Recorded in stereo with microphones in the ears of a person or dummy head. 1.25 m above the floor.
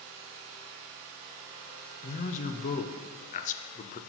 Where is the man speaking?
35° left (ahead or behind), 0.7 m.